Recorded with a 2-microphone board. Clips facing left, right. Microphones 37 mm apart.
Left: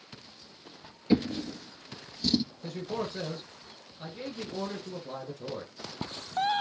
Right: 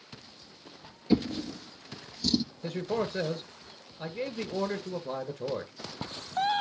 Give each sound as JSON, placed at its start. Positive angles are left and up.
{"t": 1.1, "sound": "a drawer", "side_deg": 25, "distance_m": 1.4}
{"t": 2.6, "sound": "a man speaking", "side_deg": -30, "distance_m": 2.0}